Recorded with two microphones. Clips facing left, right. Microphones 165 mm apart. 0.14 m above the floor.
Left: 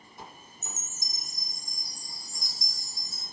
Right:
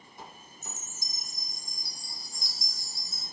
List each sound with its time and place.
0.6 s a chime: 45° left (ahead or behind), 4.5 m